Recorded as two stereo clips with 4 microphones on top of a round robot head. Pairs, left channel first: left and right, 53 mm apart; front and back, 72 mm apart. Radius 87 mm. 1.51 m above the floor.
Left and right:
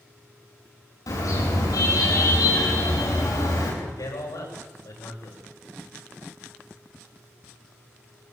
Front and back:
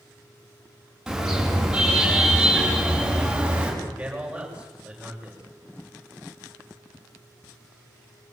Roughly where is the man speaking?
Left.